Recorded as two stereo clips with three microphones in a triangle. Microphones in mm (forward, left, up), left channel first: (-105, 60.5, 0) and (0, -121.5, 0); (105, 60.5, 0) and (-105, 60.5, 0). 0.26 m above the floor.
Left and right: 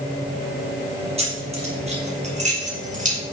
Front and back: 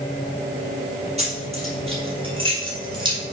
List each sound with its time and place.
1.2 s keys jangling: 120° right, 4 m; by 3.2 s 110° right, 3.5 m